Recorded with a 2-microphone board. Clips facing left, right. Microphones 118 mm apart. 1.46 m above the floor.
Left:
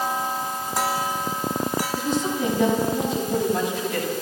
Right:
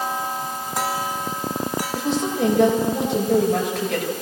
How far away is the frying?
I don't hear frying.